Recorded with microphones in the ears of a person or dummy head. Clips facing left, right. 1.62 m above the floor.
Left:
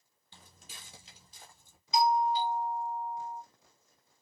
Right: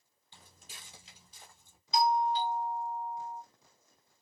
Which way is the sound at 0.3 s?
30° left (ahead or behind).